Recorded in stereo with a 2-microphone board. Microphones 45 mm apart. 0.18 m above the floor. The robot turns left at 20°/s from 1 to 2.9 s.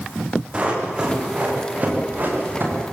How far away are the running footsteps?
About 7.5 m.